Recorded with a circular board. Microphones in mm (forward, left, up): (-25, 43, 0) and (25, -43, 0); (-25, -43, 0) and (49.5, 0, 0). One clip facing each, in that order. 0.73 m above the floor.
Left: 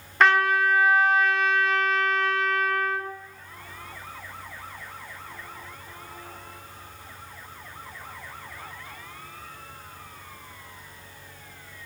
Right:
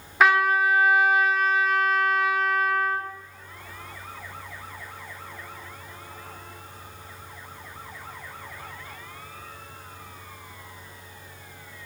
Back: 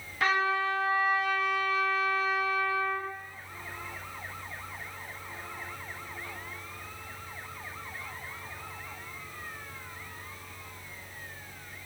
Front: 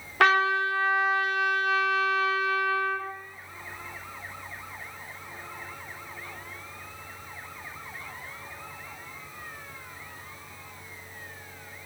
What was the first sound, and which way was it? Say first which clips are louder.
A trumpet: even, front 5 dB; 25° left.